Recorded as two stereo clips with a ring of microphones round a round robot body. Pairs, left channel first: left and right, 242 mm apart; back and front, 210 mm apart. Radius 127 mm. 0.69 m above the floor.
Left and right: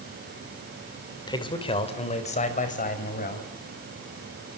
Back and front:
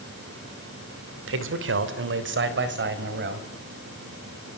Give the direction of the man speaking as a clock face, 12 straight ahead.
11 o'clock.